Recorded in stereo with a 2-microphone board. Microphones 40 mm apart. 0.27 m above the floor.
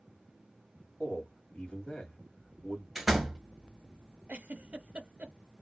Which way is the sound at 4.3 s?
35° right (ahead or behind).